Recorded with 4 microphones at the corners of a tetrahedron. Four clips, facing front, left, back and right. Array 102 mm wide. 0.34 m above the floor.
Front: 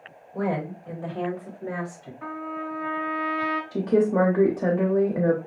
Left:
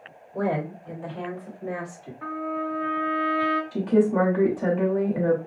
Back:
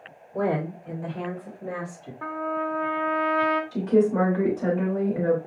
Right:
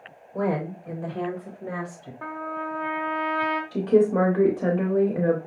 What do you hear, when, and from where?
0.3 s a woman speaking: 130° right, 1.3 m; by 2.1 s 40° right, 2 m
2.2 s a trumpet: 135° right, 1.2 m
3.7 s a woman speaking: 30° right, 0.9 m